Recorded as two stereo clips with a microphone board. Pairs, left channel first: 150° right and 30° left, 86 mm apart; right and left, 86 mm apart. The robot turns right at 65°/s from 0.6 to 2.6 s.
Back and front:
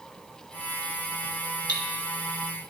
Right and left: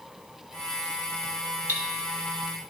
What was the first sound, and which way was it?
Cutlery clinking, 30° left.